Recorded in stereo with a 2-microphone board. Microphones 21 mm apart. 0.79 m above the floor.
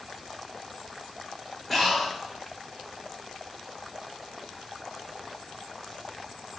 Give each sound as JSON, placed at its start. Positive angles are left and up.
{"t": 1.7, "sound": "breathing", "side_deg": 10, "distance_m": 1.2}